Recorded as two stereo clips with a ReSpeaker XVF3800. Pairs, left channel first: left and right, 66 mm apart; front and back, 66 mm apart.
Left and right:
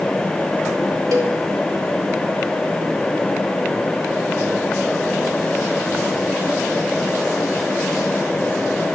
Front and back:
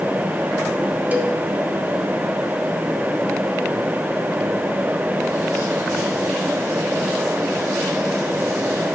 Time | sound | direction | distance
1.1 | a cowbell | 115° right | 1.5 m